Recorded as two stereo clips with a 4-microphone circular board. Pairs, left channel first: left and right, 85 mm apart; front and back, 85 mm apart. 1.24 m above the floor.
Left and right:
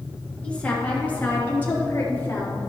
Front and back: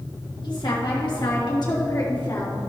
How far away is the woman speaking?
About 2.5 m.